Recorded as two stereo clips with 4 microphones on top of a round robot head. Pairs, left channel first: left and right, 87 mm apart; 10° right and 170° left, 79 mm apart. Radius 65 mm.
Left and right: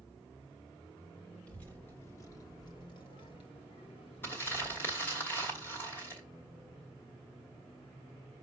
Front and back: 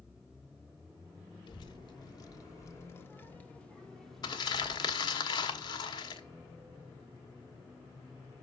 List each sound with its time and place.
1.5 s a child speaking: 10° left, 1.3 m; by 5.2 s 90° left, 1.7 m
4.2 s crumpling: 20° left, 1.2 m